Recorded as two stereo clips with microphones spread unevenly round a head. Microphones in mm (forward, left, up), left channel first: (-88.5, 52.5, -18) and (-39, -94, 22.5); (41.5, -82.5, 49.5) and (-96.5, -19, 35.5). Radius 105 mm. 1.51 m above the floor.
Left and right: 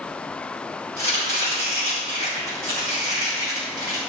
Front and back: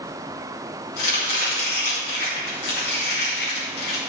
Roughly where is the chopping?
Ahead right.